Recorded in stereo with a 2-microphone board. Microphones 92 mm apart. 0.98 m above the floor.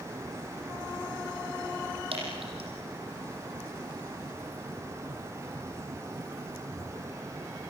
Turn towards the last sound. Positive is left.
turn(degrees=-75)  # may be behind; listen again after turning